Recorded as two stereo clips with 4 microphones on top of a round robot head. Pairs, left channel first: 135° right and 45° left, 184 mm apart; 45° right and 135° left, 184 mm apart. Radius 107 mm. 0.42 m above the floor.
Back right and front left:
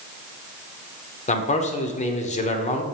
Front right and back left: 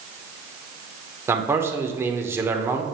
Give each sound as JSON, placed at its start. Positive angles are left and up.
{"t": 1.3, "sound": "a man speaking", "azimuth_deg": -155, "distance_m": 1.0}